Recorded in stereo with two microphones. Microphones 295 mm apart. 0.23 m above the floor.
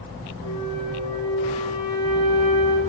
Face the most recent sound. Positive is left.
turn(degrees=15)  # may be behind; listen again after turning